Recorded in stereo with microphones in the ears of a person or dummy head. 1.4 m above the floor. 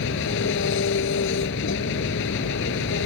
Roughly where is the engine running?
Left.